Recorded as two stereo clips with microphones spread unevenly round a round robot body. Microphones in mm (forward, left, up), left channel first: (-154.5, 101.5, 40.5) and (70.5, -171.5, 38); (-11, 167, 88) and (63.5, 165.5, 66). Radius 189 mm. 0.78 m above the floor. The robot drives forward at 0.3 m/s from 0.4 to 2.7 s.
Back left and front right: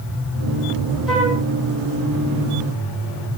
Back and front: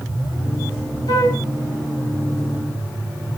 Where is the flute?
140° right, 4.5 m.